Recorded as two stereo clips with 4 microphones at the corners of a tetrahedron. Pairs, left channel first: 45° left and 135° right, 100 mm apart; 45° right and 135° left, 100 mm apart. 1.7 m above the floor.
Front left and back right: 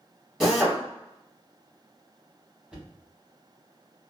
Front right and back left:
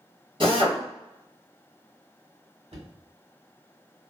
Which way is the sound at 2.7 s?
145° left.